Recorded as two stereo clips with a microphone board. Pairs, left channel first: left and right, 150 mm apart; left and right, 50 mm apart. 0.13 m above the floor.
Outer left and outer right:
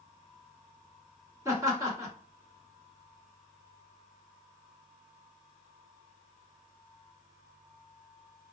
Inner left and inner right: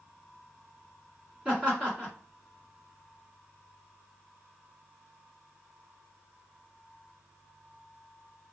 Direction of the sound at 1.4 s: 20° right (ahead or behind).